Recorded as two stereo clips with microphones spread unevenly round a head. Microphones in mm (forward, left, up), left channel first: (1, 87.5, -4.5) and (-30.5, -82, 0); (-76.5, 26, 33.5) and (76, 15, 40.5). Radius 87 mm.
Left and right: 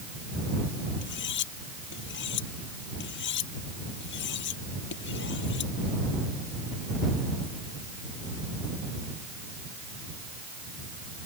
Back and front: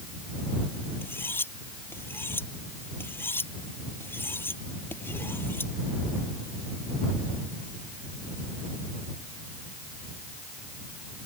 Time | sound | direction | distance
1.0 | cutlery clinking | 100° left | ?